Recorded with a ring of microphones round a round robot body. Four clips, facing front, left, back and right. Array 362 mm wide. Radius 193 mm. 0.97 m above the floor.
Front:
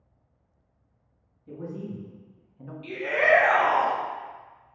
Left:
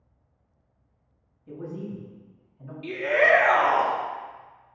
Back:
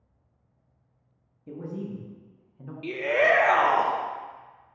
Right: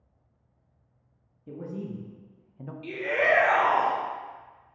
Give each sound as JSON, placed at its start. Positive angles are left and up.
{"t": 1.5, "sound": "a man speaking", "azimuth_deg": -140, "distance_m": 1.1}
{"t": 2.8, "sound": "a shout", "azimuth_deg": 150, "distance_m": 1.0}